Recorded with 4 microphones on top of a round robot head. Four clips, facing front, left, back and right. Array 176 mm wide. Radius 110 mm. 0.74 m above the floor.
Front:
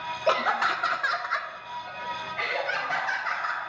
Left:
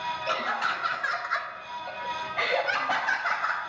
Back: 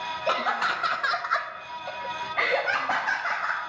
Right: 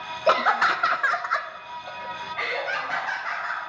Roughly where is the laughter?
Right.